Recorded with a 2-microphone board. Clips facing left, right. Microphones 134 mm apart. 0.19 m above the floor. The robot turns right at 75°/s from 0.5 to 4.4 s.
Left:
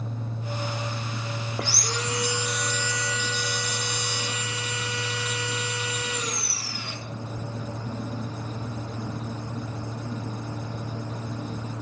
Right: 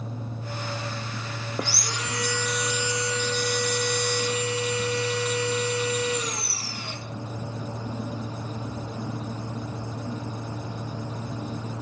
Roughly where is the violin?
I don't hear a violin.